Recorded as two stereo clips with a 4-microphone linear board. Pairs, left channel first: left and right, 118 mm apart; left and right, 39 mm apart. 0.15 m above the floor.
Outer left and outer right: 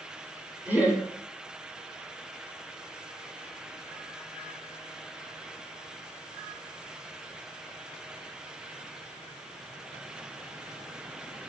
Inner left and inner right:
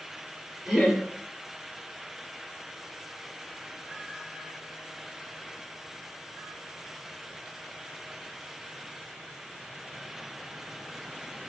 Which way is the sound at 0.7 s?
15° right (ahead or behind).